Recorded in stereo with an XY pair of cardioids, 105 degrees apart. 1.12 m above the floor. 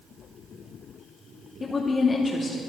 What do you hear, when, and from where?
1.6 s a woman speaking: 30° left, 2.5 m